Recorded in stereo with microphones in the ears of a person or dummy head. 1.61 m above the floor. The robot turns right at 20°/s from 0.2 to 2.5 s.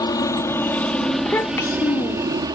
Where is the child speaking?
15° left (ahead or behind); by 2.5 s 40° left (ahead or behind).